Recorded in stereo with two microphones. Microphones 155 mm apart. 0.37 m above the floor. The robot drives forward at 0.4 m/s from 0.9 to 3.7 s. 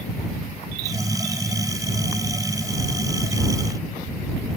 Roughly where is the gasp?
No gasp in this recording.